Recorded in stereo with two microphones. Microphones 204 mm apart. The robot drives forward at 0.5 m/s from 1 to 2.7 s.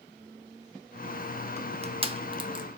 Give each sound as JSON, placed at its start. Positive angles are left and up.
{"t": 1.6, "sound": "crushing", "side_deg": -35, "distance_m": 1.1}